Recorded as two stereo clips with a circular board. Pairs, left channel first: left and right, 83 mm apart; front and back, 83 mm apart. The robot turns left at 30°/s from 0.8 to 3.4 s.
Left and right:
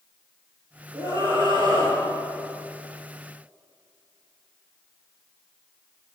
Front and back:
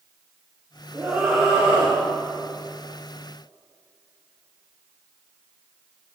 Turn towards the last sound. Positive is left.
turn(degrees=180)